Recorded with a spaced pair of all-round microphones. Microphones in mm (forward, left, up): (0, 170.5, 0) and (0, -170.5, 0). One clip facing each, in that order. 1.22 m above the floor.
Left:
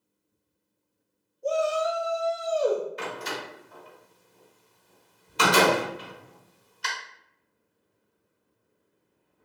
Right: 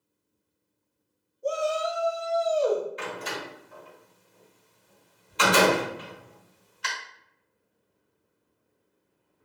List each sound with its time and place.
1.4 s a shout: 5° right (ahead or behind), 0.9 m; by 2.9 s 30° left (ahead or behind), 1.3 m
3.0 s a door slam: 55° left (ahead or behind), 1.4 m